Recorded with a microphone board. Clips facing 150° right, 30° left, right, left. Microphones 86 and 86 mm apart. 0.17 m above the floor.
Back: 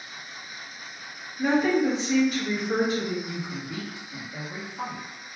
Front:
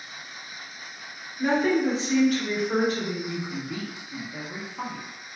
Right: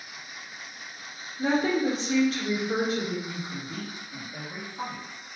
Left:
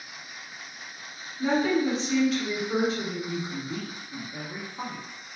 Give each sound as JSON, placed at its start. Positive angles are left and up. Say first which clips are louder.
{"t": 1.4, "sound": "a woman speaking", "louder": "even, left 1 dB", "azimuth_deg": -80, "distance_m": 1.8}
{"t": 3.3, "sound": "a woman speaking", "louder": "front 2 dB, left 4 dB", "azimuth_deg": 40, "distance_m": 1.3}